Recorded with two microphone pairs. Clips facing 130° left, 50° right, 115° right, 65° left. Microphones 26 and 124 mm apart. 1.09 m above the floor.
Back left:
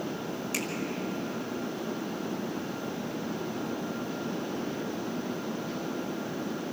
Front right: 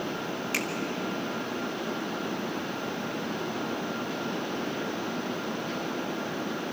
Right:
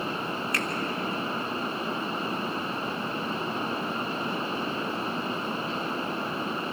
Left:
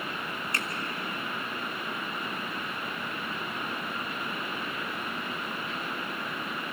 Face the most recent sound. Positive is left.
turn(degrees=5)